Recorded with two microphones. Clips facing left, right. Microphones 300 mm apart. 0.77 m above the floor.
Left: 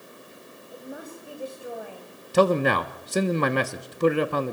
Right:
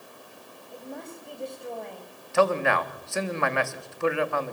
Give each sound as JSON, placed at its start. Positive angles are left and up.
{"t": 0.7, "sound": "a woman speaking", "side_deg": 5, "distance_m": 5.0}
{"t": 2.3, "sound": "a man speaking", "side_deg": 45, "distance_m": 1.2}